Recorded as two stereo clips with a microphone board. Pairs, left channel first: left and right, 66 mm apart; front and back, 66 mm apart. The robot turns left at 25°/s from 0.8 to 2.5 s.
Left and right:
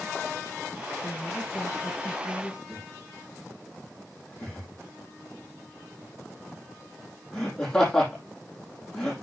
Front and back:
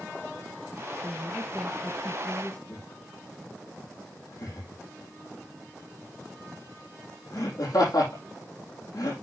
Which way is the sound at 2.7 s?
10° left.